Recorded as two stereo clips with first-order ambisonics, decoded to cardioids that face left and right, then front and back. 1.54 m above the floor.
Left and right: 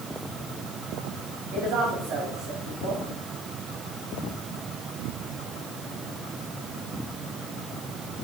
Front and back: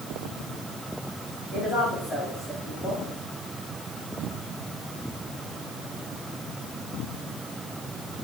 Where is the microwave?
I don't hear a microwave.